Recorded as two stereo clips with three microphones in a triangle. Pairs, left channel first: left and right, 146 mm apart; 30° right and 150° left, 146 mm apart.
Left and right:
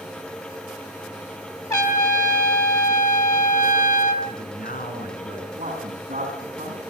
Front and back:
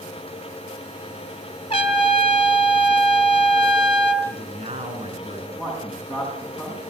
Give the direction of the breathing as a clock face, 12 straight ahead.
I don't hear breathing.